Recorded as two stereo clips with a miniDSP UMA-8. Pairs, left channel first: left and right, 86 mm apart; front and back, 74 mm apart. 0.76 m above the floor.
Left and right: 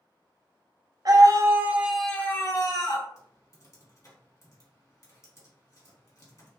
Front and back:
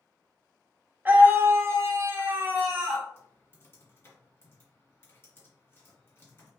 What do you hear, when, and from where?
1.1 s a scream: 120° right, 0.7 m; by 3.1 s 110° left, 0.8 m
3.2 s typing on a keyboard: 50° left, 1.7 m